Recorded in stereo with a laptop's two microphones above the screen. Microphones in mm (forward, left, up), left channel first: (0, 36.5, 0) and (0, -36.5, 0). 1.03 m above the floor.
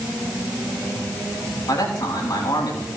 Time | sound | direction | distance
1.7 | a man speaking | 65° left (ahead or behind) | 8 m